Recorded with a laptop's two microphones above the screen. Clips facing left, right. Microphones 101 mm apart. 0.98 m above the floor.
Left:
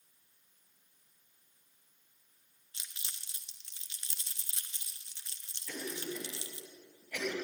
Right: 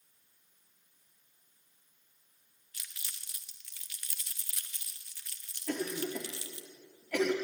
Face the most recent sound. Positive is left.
turn(degrees=-60)  # may be behind; listen again after turning